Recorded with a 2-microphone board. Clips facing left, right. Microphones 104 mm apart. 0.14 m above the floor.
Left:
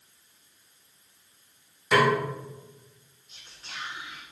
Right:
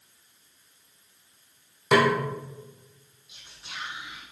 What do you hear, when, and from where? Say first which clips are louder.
1.9 s a snare drum: right 1 dB; 65° right (ahead or behind), 2.5 m
3.3 s whispering: right 1 dB; 10° right (ahead or behind), 1.4 m